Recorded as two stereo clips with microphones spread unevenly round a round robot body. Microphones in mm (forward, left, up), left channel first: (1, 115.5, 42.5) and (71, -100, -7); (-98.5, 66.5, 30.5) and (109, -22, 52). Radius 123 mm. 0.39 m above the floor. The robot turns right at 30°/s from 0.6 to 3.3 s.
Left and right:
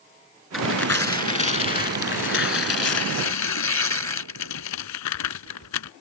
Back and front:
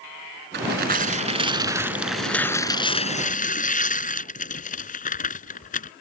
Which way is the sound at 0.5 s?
20° left.